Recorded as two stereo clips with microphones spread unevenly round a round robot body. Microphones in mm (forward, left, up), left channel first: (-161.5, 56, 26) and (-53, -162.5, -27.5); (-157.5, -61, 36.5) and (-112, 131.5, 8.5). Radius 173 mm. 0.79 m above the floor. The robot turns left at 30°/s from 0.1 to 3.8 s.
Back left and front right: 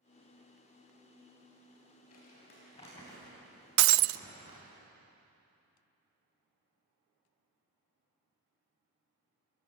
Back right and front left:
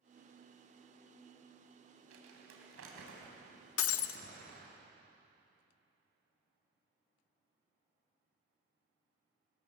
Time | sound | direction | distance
2.1 | crumpling | 65° left | 3.5 m
3.8 | breaking glass | 85° right | 0.5 m